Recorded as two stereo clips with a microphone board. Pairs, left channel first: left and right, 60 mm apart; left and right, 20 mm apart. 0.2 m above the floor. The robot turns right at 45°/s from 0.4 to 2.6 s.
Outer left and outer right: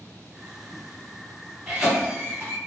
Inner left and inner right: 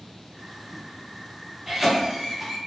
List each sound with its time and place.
1.7 s a cough: 10° right (ahead or behind), 1.5 m; by 2.6 s 35° right (ahead or behind), 1.5 m